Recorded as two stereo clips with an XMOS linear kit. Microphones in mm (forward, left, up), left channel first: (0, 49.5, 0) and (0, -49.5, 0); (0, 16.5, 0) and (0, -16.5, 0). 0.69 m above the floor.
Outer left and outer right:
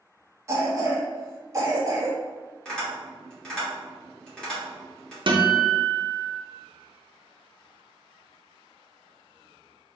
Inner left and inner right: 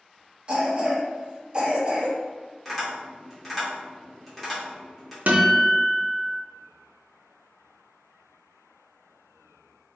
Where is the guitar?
55° right (ahead or behind), 0.6 m.